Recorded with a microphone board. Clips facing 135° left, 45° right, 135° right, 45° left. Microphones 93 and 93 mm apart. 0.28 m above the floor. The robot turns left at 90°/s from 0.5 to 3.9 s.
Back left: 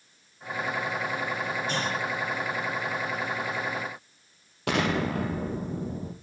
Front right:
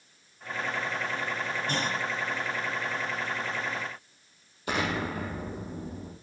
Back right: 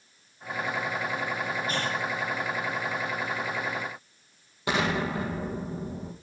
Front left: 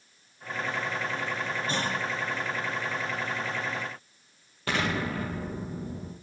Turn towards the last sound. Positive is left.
turn(degrees=150)